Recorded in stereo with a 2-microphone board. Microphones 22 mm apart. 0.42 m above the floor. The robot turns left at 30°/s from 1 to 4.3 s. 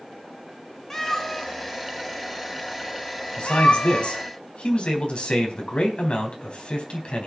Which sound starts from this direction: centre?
A cat meowing, at 0.9 s.